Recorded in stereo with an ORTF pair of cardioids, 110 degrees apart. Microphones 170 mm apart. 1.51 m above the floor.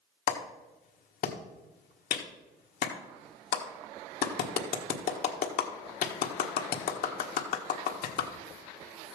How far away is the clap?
About 1.5 m.